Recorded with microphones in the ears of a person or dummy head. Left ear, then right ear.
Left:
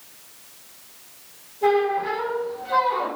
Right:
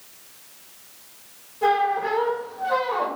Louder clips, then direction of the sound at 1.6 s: Even; 60° right (ahead or behind).